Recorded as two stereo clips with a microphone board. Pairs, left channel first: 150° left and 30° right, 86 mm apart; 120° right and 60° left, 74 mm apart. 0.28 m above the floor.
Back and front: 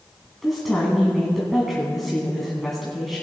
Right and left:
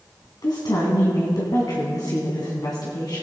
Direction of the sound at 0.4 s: 120° right.